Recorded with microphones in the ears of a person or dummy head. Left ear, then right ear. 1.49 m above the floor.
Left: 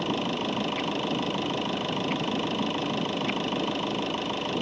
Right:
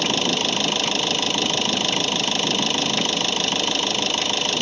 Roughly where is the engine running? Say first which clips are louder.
Right 8 dB; right.